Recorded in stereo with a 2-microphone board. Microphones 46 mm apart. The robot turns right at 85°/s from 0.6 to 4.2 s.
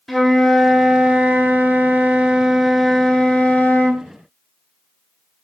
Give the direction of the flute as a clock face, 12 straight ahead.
6 o'clock.